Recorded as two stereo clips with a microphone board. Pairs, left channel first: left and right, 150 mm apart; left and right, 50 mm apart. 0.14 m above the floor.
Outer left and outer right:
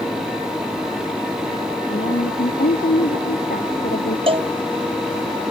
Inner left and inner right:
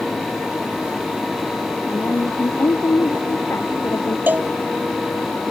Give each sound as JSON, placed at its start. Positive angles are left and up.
{"t": 1.9, "sound": "a woman speaking", "side_deg": 80}
{"t": 4.3, "sound": "a cowbell", "side_deg": -40}